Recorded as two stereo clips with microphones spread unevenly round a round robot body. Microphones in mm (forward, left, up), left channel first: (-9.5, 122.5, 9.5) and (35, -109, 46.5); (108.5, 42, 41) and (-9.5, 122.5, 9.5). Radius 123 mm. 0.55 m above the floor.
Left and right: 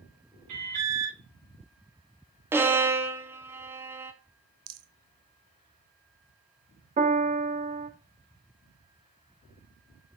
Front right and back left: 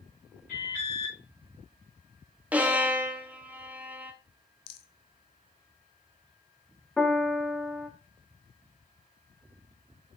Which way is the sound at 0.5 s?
80° right.